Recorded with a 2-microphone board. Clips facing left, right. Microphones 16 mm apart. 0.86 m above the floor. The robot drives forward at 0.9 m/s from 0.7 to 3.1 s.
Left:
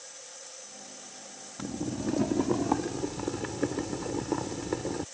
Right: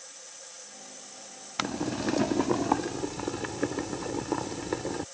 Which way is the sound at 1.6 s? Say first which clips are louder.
Right 4 dB; 80° right.